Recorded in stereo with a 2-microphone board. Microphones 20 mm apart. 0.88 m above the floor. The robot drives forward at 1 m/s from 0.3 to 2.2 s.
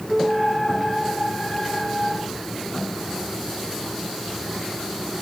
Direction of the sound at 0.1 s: 30° right (ahead or behind).